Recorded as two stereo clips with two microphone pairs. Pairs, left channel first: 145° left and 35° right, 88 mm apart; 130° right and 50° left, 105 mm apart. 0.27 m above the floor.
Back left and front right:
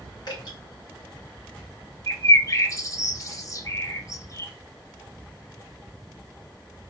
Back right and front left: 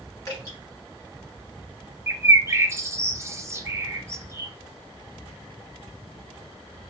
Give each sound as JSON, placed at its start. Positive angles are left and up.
{"t": 0.3, "sound": "dripping", "azimuth_deg": 175, "distance_m": 2.5}
{"t": 2.1, "sound": "a bird", "azimuth_deg": 110, "distance_m": 0.5}